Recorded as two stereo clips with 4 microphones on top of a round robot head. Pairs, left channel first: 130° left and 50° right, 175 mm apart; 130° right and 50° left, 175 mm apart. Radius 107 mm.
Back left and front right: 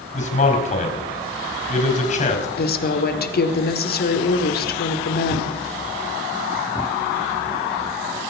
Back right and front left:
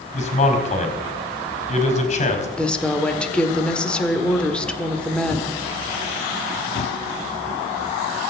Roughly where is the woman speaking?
Behind left.